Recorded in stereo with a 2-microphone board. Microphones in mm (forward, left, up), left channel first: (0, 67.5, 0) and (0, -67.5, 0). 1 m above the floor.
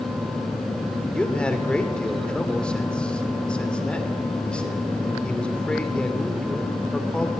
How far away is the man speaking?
About 3.5 m.